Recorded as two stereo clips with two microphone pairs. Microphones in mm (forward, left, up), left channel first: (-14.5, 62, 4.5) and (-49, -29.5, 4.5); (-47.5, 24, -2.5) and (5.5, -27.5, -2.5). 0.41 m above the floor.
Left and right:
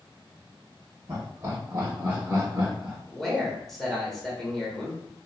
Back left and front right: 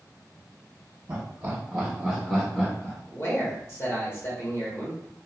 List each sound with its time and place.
1.1 s laughter: 75° right, 1.1 m; by 3.0 s 175° left, 1.0 m
3.1 s a man speaking: 155° left, 1.1 m